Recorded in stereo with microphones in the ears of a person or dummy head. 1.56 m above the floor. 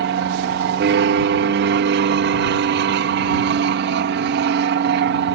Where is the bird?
No bird in this recording.